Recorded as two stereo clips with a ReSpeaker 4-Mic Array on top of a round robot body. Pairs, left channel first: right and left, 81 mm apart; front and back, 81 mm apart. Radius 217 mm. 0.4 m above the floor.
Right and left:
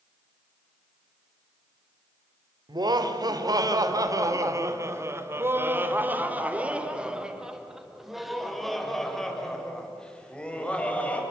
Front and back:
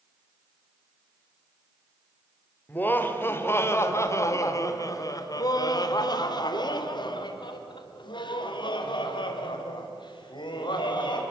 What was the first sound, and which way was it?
Laughter, 65° left.